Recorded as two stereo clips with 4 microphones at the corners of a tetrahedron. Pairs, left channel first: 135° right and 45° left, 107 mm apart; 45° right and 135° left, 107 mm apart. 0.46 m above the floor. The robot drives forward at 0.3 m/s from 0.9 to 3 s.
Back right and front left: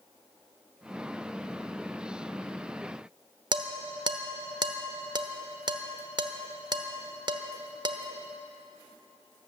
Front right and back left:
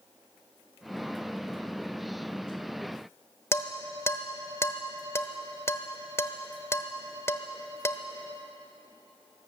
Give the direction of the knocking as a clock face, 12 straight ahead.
No knocking in this recording.